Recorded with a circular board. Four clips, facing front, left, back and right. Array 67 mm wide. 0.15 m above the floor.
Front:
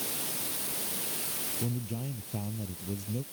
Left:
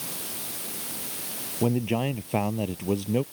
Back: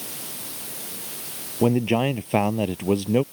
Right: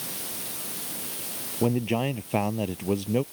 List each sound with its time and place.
1.6 s a man speaking: 175° right